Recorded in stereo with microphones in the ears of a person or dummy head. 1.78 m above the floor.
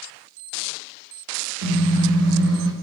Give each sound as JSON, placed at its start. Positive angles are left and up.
{"t": 1.6, "sound": "a car horn", "side_deg": -75, "distance_m": 5.0}